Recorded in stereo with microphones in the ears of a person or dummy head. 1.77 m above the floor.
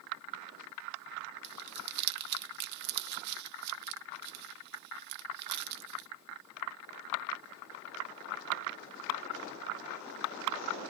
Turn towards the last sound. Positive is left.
turn(degrees=-55)  # may be behind; listen again after turning